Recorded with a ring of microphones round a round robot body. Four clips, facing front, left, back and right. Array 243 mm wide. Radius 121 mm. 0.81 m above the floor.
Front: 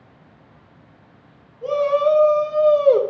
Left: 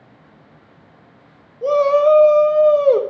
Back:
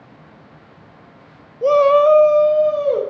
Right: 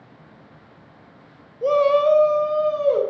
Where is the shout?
Straight behind, 0.9 m; by 3.0 s 65° left, 0.9 m.